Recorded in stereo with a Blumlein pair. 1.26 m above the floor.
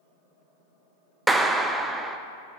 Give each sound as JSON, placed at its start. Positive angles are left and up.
{"t": 1.3, "sound": "a clap", "azimuth_deg": -10, "distance_m": 0.5}